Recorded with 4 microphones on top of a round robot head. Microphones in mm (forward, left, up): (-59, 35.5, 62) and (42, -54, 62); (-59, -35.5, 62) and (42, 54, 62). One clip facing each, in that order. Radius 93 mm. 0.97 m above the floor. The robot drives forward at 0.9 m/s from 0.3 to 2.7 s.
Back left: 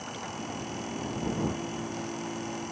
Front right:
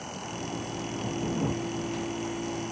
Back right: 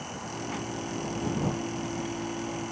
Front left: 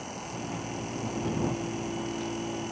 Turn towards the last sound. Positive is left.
No sound to turn to.